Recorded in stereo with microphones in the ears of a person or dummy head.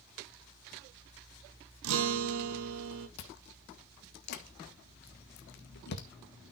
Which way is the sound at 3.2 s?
60° left (ahead or behind).